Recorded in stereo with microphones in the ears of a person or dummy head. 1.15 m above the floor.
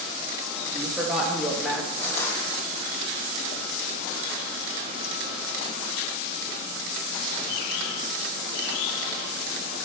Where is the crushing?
10° left (ahead or behind), 3.5 m.